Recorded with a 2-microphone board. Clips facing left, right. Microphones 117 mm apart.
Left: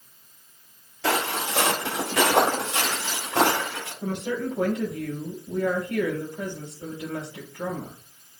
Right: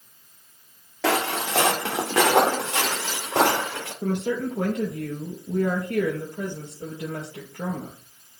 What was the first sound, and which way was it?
Footsteps, 80° right.